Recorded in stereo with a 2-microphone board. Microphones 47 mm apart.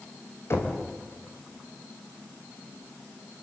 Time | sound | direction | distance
0.5 | knocking | 60° left (ahead or behind) | 3.5 m